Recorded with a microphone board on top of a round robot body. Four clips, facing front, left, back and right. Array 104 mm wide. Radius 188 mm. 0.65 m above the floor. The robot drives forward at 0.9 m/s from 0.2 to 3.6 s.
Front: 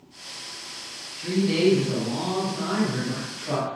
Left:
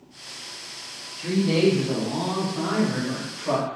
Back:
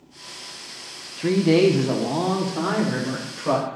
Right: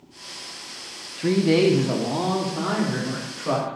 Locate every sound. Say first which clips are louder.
1.2 s a woman speaking: right 3 dB, back 5 dB; 140° right, 1.2 m; by 3.8 s 165° right, 3 m